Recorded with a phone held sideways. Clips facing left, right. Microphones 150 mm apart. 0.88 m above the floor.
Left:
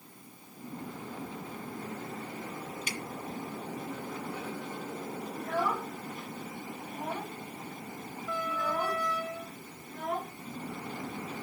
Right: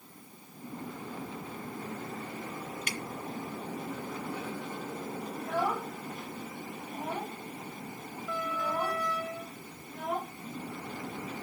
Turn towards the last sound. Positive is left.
turn(degrees=-5)  # may be behind; listen again after turning